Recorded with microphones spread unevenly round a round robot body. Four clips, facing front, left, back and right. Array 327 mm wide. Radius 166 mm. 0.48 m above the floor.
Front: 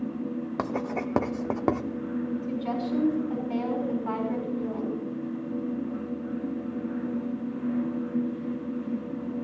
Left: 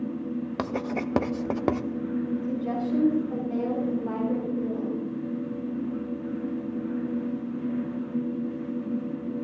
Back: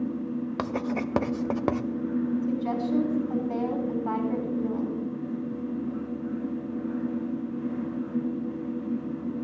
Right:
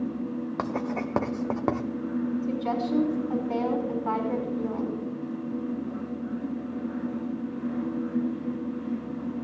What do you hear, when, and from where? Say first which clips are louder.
0.6 s writing: even, front 1 dB; 40° left, 0.8 m
2.4 s a woman speaking: right 1 dB, back 2 dB; 115° right, 4 m